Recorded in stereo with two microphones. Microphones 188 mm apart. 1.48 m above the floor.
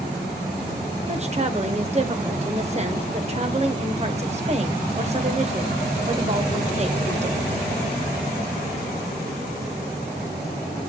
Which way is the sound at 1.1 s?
35° right (ahead or behind).